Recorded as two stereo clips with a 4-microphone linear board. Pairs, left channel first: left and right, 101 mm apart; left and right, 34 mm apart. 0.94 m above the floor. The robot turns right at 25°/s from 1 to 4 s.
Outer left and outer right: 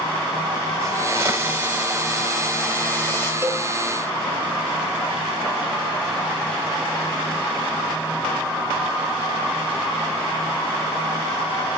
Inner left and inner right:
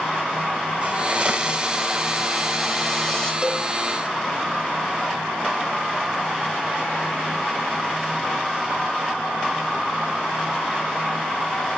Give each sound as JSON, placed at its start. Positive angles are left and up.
{"t": 0.8, "sound": "a hiss", "azimuth_deg": -30, "distance_m": 2.0}
{"t": 3.4, "sound": "a cowbell", "side_deg": -25, "distance_m": 1.2}